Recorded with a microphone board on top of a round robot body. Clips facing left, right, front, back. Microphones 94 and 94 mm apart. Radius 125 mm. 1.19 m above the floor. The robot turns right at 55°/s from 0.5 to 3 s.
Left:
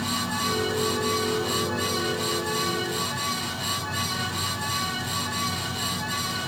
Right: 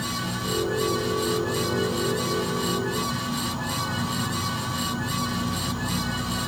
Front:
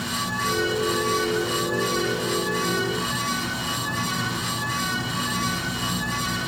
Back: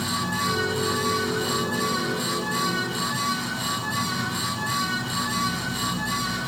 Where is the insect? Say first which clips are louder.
Left 2 dB, back 1 dB; 140° left, 3 m; by 6.5 s 80° right, 3 m.